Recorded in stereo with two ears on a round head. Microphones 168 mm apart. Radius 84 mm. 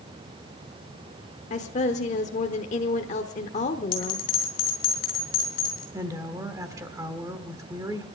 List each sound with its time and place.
1.5 s a woman speaking: 40° left (ahead or behind), 1.0 m
3.9 s a bell: 45° left (ahead or behind), 4 m
5.9 s a woman speaking: 20° right (ahead or behind), 1.4 m